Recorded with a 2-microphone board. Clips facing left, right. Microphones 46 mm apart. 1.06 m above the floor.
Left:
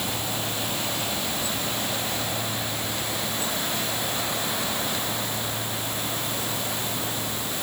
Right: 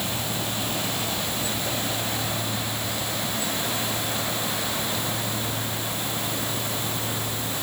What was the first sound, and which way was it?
Only background noise.